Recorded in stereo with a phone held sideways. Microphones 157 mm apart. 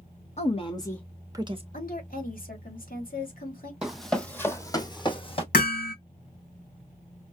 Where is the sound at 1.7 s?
65° left (ahead or behind), 2.5 m.